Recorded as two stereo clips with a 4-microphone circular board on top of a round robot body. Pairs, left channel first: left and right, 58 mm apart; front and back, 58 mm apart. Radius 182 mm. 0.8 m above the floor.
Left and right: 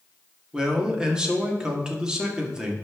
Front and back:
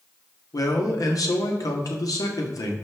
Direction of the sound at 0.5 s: 15° right.